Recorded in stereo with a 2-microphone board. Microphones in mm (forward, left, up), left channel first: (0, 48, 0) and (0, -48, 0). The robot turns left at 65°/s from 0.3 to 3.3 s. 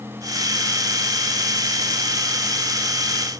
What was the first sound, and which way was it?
Only background noise.